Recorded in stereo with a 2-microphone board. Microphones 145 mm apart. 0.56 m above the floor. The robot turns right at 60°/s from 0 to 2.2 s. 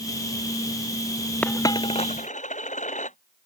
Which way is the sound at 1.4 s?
10° left (ahead or behind).